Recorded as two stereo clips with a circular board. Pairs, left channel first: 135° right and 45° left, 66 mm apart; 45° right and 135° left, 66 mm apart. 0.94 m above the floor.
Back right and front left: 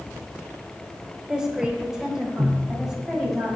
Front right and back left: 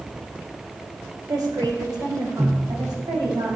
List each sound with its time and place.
1.3 s a woman speaking: 120° left, 2.5 m; by 3.6 s 130° left, 5 m